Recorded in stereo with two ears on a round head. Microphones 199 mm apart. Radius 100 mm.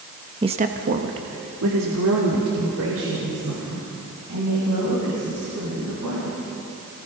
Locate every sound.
0.4 s a woman speaking: 20° right (ahead or behind), 1.1 m; by 6.4 s 75° right (ahead or behind), 8.5 m